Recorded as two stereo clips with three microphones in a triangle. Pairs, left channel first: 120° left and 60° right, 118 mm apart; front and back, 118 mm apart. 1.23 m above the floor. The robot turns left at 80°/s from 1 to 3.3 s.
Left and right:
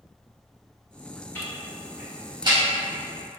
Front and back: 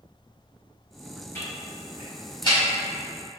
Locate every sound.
1.4 s ticking: 60° left, 1.0 m; by 2.6 s 40° right, 1.0 m